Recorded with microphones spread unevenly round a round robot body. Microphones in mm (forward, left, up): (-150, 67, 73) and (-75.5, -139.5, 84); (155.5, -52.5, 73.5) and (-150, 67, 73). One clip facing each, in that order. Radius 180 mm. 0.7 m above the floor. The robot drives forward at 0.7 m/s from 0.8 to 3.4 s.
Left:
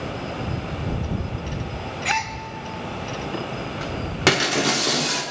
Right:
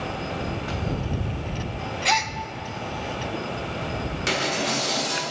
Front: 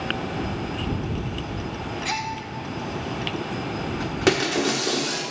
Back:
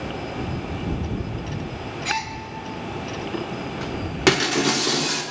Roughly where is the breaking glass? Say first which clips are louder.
Left 7 dB, back 1 dB; left.